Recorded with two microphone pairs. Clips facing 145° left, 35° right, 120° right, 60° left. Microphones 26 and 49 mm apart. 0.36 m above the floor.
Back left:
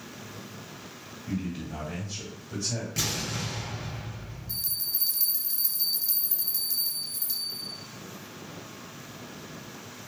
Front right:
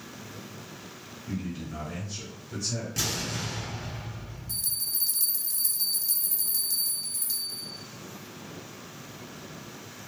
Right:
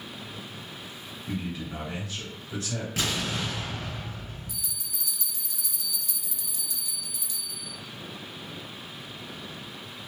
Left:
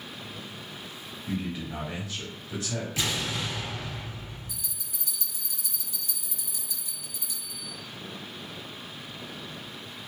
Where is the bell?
85° left, 0.7 m.